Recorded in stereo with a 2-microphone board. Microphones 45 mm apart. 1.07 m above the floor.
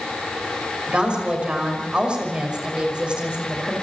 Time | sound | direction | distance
0.9 | a woman speaking | 25° right (ahead or behind) | 6 m